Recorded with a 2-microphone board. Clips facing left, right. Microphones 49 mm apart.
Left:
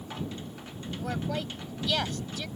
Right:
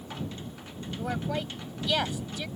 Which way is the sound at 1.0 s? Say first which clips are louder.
Right 1 dB; 10° right (ahead or behind).